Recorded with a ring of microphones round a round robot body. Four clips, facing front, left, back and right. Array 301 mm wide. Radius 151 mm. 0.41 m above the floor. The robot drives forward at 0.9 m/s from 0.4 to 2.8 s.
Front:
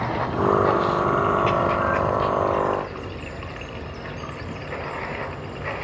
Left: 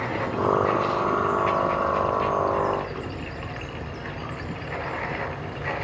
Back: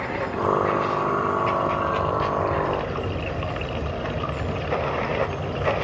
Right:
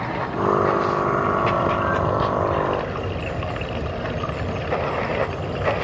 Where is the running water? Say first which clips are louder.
Right 2 dB, front 2 dB; 30° right, 1.9 m; by 5.8 s 120° right, 1.1 m.